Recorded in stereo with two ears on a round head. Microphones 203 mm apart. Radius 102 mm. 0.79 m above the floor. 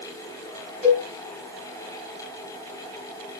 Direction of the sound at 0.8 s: 10° right (ahead or behind).